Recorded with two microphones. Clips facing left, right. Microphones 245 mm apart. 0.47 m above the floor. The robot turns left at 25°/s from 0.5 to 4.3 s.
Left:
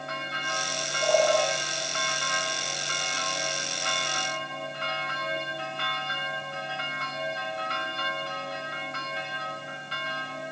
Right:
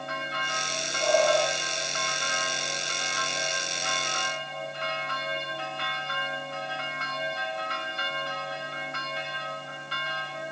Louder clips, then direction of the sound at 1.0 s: Even; 60° right (ahead or behind).